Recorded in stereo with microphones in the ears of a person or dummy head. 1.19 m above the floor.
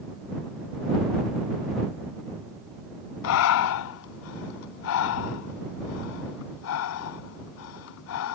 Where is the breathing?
55° left (ahead or behind).